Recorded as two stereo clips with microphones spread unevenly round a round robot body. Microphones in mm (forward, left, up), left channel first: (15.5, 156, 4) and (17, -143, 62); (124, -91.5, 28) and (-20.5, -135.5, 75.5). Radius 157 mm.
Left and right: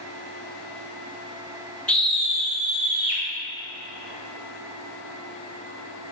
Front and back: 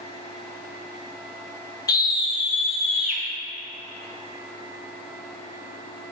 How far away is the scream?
About 1.2 m.